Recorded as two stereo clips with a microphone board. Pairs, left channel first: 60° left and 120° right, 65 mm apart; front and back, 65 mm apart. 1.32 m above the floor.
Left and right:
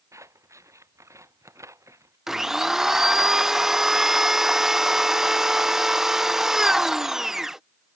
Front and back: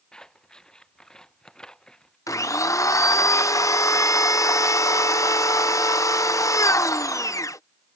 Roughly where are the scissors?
Right.